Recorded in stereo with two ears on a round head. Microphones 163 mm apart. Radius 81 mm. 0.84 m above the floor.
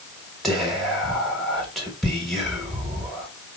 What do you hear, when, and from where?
0.4 s whispering: centre (ahead or behind), 1.4 m